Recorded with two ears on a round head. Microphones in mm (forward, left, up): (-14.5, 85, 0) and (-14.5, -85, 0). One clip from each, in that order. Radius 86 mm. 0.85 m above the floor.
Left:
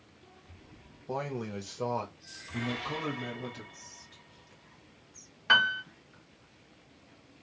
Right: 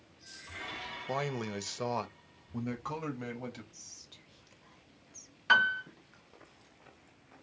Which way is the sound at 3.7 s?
30° right (ahead or behind).